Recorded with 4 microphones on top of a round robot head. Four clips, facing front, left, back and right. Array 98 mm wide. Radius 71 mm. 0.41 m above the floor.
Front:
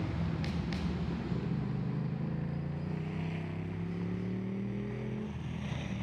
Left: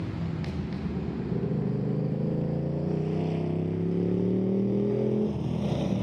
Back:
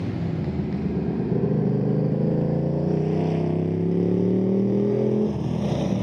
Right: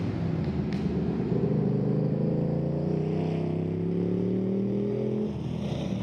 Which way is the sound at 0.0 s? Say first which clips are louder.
Right 3 dB, back 9 dB; 150° right.